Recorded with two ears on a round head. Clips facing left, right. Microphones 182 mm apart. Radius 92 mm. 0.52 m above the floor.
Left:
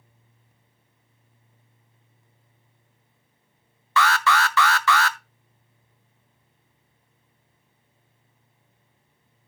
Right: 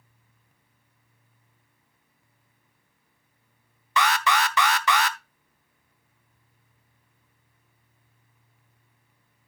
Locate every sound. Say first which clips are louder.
4.0 s an alarm: left 2 dB; 15° right (ahead or behind), 0.6 m